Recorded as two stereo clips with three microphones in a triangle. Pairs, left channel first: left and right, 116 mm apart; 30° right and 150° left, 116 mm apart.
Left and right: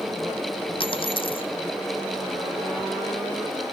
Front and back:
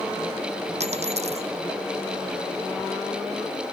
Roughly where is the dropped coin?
Behind left.